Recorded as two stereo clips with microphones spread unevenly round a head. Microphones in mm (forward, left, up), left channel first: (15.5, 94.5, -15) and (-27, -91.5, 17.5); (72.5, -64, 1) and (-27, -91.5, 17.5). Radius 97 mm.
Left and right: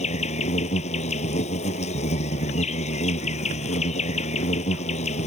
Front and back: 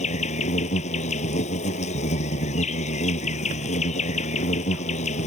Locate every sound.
0.0 s an insect: 20° left